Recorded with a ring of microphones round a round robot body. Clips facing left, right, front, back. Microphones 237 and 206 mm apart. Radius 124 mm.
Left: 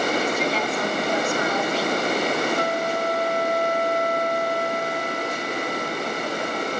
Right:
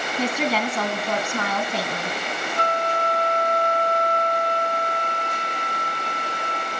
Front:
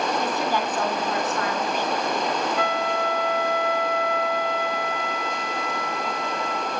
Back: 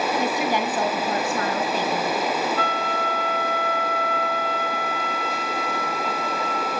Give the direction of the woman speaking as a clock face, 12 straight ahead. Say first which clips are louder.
Even, back 2 dB; 3 o'clock.